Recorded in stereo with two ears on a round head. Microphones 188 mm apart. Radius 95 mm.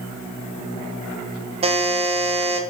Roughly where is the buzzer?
Right.